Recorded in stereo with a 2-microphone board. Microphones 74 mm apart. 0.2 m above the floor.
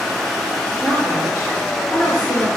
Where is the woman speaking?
35° left (ahead or behind), 3 m; by 2.5 s 20° left (ahead or behind), 2 m.